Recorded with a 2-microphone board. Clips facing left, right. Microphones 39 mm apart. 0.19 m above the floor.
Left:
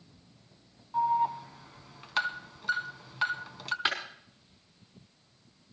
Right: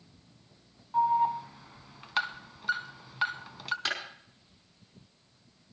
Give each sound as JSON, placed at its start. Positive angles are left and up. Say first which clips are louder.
{"t": 0.9, "sound": "an alarm", "louder": "right 2 dB", "side_deg": -5, "distance_m": 0.9}
{"t": 3.9, "sound": "a clap", "louder": "left 4 dB", "side_deg": 20, "distance_m": 5.5}